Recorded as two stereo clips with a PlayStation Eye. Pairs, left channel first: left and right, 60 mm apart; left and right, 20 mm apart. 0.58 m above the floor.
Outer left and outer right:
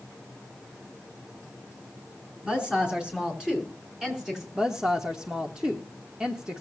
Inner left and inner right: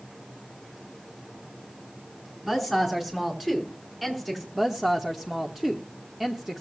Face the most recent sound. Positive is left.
turn(degrees=-15)  # may be behind; listen again after turning